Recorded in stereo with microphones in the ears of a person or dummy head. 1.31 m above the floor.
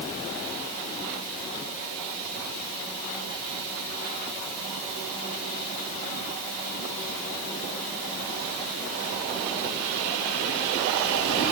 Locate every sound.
Only background noise.